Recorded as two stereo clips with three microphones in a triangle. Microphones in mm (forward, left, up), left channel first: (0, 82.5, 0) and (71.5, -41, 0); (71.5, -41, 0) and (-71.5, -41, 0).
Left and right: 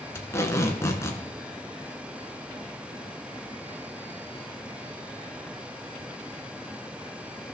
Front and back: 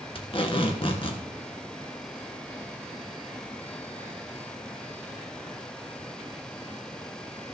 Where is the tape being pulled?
50° left, 1.5 m.